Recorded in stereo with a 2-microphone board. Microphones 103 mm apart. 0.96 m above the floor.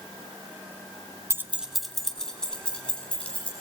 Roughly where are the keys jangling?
Right.